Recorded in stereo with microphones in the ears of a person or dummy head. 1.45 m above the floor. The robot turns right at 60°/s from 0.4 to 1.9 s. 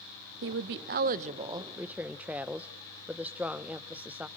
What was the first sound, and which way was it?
A woman speaking, 100° right.